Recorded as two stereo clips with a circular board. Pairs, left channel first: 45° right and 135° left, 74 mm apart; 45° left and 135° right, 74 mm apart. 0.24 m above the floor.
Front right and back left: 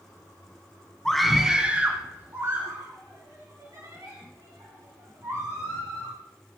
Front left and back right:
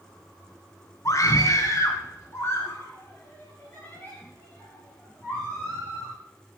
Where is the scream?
35° left, 2.0 m; by 6.1 s 115° left, 7 m.